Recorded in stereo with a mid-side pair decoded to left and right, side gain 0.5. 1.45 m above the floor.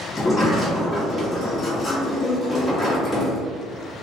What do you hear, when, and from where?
0.2 s a sliding door: 20° left, 1.2 m